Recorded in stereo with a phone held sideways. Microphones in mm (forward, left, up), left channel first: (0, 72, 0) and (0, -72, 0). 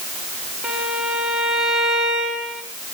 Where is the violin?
Centre (ahead or behind), 2.5 m.